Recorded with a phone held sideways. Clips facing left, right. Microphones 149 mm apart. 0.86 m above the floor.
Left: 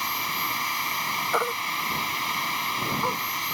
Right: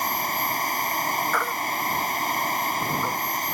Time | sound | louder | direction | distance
0.0 | a machine running | right 5 dB | 45° right (ahead or behind) | ?
1.3 | a baby crying | right 1 dB | 20° left (ahead or behind) | ?